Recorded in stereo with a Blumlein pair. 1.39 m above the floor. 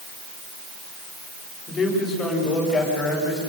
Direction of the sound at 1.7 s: 15° left.